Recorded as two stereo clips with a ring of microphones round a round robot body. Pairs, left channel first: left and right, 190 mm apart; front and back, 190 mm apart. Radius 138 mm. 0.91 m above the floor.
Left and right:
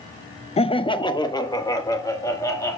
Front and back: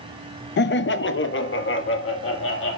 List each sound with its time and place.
0.6 s laughter: 30° left, 0.6 m; by 2.8 s 15° left, 2.5 m